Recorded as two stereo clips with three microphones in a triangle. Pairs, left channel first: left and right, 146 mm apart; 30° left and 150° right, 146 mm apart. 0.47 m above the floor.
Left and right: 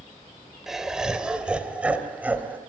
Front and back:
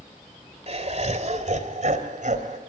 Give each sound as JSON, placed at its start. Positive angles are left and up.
{"t": 0.7, "sound": "laughter", "azimuth_deg": -175, "distance_m": 2.0}